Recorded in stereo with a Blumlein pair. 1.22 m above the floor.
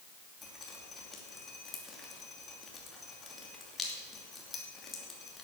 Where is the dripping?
15° left, 2.5 m.